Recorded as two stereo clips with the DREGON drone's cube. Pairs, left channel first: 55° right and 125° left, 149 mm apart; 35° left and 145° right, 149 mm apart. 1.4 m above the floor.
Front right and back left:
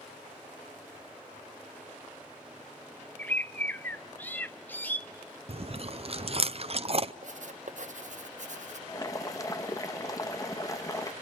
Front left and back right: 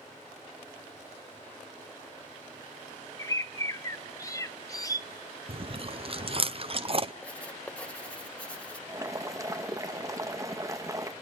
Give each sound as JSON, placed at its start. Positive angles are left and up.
{"t": 3.2, "sound": "a bird", "azimuth_deg": 5, "distance_m": 0.6}
{"t": 5.5, "sound": "chewing", "azimuth_deg": 170, "distance_m": 0.6}
{"t": 7.2, "sound": "writing", "azimuth_deg": 115, "distance_m": 0.8}
{"t": 8.9, "sound": "boiling", "azimuth_deg": -100, "distance_m": 0.7}